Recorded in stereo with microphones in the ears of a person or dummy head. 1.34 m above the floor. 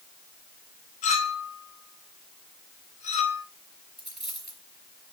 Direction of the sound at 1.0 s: 35° left (ahead or behind).